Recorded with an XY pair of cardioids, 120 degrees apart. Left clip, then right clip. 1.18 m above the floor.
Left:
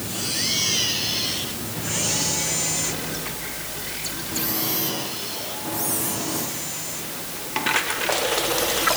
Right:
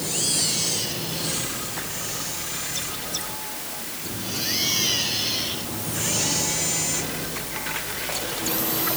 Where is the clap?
I don't hear a clap.